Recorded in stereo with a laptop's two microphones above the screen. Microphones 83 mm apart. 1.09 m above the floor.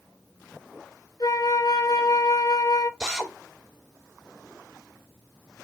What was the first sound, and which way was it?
A flute, 50° left (ahead or behind).